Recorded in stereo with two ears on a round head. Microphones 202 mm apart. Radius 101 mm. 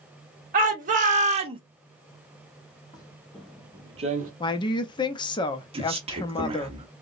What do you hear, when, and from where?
0.5 s a shout: 40° right (ahead or behind), 1.4 m; by 1.6 s 25° right (ahead or behind), 0.6 m
2.9 s footsteps: 20° left (ahead or behind), 1.2 m; by 4.3 s 40° right (ahead or behind), 0.9 m
4.4 s a woman speaking: 20° left (ahead or behind), 0.5 m
5.7 s a man speaking: 25° right (ahead or behind), 1.1 m